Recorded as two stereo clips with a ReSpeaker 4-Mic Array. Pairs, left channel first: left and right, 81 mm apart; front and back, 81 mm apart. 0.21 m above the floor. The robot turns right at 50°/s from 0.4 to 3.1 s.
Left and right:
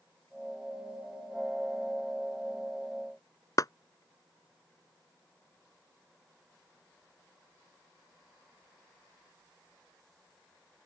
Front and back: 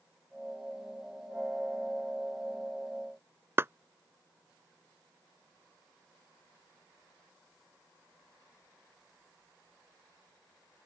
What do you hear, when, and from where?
3.6 s a clap: 125° left